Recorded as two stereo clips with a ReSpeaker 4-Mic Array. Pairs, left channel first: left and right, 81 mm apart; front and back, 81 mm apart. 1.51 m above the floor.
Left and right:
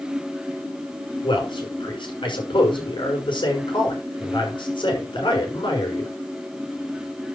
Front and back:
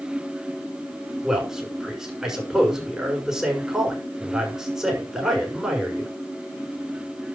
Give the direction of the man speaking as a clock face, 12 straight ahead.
9 o'clock.